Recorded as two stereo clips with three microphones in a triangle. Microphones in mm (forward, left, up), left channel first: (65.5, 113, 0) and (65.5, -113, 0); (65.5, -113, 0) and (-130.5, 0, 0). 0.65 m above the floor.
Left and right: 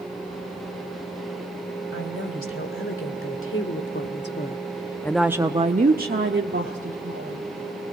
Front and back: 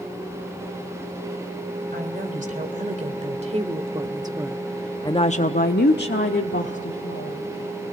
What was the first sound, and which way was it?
A woman speaking, 100° left.